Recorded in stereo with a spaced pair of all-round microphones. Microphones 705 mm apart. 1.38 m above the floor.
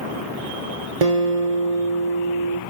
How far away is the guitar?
About 0.7 m.